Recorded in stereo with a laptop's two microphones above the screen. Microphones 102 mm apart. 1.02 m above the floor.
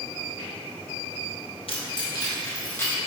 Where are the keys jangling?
65° left (ahead or behind), 0.8 m; by 2.9 s 25° left (ahead or behind), 1.6 m.